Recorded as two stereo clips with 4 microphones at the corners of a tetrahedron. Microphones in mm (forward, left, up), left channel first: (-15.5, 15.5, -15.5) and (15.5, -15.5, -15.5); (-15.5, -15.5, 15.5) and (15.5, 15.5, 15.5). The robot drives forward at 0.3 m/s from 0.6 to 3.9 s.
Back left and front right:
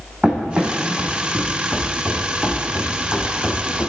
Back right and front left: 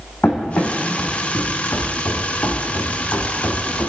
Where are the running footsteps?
105° right, 2.5 m; by 3.9 s 160° right, 3 m.